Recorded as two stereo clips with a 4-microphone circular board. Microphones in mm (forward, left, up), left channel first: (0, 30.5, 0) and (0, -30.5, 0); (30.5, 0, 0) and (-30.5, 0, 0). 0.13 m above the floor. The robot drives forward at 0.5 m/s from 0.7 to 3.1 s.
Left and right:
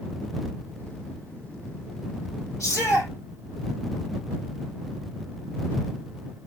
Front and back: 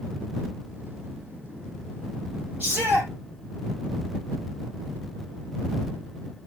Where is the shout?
125° left, 6 m.